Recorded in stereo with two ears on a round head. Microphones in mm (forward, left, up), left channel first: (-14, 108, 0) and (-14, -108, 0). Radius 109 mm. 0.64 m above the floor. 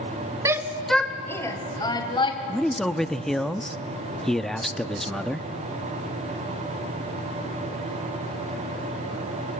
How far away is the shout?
About 1.3 m.